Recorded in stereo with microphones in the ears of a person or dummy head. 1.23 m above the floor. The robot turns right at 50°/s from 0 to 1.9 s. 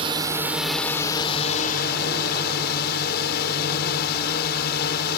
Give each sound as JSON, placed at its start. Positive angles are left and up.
{"t": 0.0, "sound": "a drone", "azimuth_deg": -30}